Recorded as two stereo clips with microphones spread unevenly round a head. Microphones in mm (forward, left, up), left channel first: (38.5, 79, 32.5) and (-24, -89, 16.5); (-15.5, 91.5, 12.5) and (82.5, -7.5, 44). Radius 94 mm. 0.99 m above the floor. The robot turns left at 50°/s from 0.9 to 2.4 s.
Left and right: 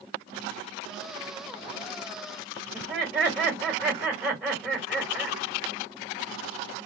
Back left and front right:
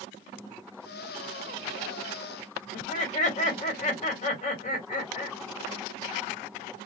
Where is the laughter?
170° left, 1.5 m.